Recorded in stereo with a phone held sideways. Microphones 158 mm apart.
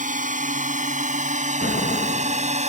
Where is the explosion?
80° left.